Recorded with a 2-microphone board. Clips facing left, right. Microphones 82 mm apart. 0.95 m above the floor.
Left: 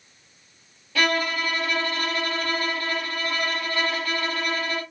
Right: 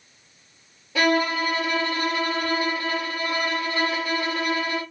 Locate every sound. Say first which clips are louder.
0.9 s a violin: right 3 dB; 20° right (ahead or behind), 1.7 m